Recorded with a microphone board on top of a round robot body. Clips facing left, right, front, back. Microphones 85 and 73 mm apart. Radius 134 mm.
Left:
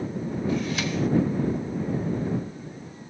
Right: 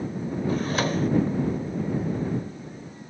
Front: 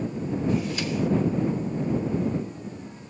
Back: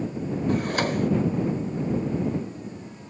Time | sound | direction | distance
0.5 | a drawer | 140° right | ?